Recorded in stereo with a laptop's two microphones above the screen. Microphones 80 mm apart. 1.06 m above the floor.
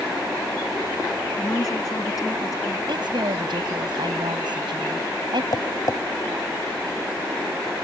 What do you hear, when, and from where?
1.4 s a woman speaking: 50° left (ahead or behind); by 2.8 s 45° left (ahead or behind)
2.9 s a woman speaking: 70° right (ahead or behind)
5.5 s tapping: 55° left (ahead or behind)